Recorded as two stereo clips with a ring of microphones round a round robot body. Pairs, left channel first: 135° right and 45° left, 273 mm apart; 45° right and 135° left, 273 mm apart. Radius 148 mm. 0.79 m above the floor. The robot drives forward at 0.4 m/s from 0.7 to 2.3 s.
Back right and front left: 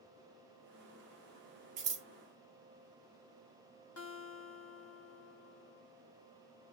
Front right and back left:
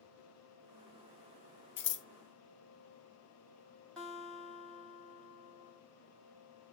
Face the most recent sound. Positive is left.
turn(degrees=-130)